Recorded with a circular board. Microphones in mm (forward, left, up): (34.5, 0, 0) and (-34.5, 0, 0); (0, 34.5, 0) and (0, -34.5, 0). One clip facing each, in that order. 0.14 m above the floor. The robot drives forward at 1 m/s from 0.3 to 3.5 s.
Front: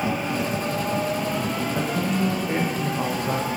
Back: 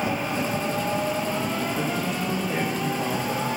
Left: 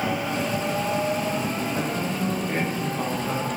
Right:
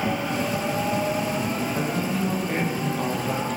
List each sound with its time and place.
1.8 s a man speaking: 10° left, 9 m; by 3.5 s 15° left, 7.5 m